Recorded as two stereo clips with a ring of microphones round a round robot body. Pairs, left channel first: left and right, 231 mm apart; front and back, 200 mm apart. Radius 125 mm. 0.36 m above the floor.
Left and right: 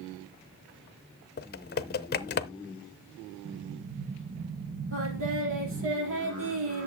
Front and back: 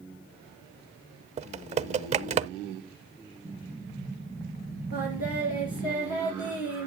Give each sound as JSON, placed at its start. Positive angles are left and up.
{"t": 1.4, "sound": "typing on a keyboard", "azimuth_deg": 130, "distance_m": 0.6}
{"t": 3.5, "sound": "an explosion", "azimuth_deg": -75, "distance_m": 1.5}
{"t": 4.9, "sound": "singing", "azimuth_deg": -55, "distance_m": 4.5}